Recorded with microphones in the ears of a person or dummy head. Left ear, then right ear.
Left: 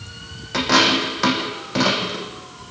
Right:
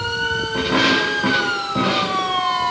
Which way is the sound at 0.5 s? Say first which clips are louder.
Left 2 dB; 60° left (ahead or behind).